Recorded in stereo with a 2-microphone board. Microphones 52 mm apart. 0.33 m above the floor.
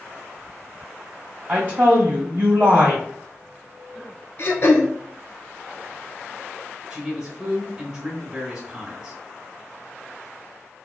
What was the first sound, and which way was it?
A woman speaking, 35° right (ahead or behind).